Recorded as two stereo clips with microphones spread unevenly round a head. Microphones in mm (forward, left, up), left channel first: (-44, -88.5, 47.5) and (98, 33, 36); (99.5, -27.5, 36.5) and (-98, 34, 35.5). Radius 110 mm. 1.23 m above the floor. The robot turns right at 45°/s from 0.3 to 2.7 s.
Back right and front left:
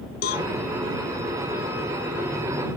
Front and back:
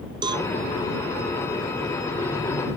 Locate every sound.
0.2 s a cowbell: 135° right; by 0.5 s 125° right